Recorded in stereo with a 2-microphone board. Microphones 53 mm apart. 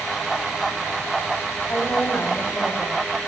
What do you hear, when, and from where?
1.7 s a woman speaking: 40° left (ahead or behind), 2.5 m